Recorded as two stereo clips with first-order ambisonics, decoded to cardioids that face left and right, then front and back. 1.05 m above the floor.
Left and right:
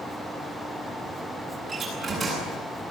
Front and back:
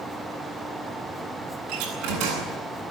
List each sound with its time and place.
1.7 s a door slam: 165° right, 8.5 m